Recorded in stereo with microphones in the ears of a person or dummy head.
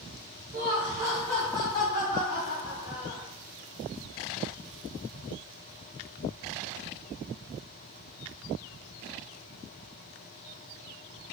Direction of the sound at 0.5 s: 50° right (ahead or behind).